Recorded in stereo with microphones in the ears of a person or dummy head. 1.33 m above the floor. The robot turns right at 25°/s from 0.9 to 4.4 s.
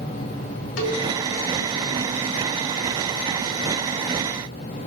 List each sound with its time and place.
0.8 s a cowbell: 70° left (ahead or behind), 3 m